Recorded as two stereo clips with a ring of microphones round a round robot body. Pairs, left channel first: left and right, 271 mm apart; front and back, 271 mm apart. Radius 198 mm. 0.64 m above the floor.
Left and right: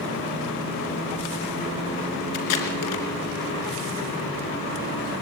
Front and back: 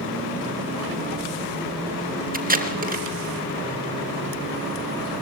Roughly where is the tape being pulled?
Behind left.